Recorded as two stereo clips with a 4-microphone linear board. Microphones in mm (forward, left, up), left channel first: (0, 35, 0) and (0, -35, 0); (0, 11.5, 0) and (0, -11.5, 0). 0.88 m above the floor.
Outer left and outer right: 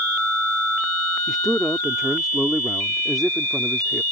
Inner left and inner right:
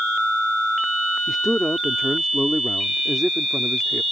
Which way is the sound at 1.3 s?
5° right (ahead or behind).